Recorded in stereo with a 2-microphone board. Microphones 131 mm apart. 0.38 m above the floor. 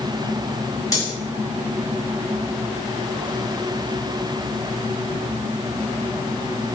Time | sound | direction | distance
0.9 | cutlery clinking | 25° left (ahead or behind) | 1.8 m